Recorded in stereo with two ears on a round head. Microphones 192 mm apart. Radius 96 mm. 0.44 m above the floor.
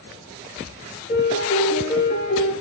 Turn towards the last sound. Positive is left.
turn(degrees=40)  # may be behind; listen again after turning